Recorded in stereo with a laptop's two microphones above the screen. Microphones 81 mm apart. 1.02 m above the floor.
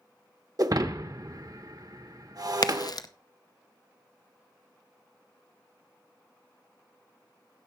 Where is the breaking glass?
50° right (ahead or behind), 0.9 m.